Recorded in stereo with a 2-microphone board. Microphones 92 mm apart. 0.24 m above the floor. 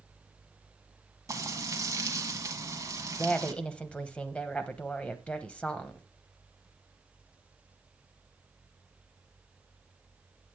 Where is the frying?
35° right (ahead or behind), 1.3 m.